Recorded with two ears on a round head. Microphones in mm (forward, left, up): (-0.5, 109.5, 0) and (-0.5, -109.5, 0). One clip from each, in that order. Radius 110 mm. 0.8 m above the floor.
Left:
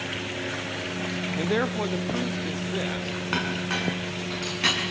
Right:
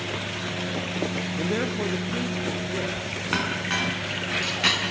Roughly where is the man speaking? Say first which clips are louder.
Left 2 dB; left.